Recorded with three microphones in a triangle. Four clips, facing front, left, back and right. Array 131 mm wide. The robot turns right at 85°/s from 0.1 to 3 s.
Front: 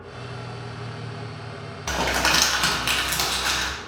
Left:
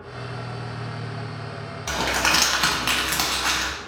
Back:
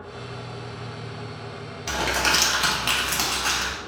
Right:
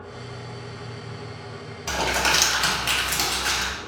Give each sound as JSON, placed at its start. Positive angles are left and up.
{"t": 1.9, "sound": "crumpling", "azimuth_deg": 5, "distance_m": 0.6}